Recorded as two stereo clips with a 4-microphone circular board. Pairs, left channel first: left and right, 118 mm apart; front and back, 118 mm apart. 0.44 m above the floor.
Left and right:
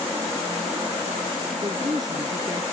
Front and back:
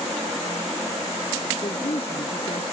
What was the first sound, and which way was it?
A woman speaking, 35° right.